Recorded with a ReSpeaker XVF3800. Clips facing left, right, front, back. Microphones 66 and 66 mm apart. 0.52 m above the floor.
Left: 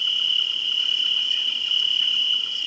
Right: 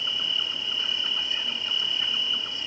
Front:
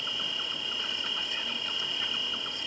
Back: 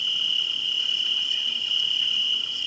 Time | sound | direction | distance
0.0 | an insect | 35° right | 1.5 m